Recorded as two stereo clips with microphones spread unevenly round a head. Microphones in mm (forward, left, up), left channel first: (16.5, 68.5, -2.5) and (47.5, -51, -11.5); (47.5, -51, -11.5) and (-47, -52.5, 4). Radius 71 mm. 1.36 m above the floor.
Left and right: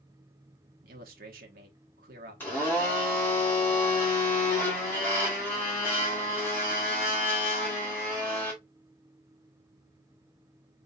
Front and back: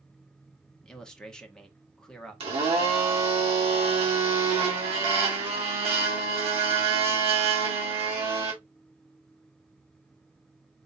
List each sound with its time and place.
0.8 s a man speaking: 80° right, 1.3 m
2.4 s a blender: straight behind, 2.0 m